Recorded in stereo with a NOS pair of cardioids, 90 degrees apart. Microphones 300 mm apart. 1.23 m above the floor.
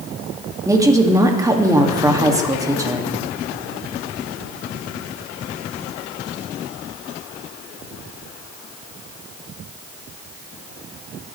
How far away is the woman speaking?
About 1.8 m.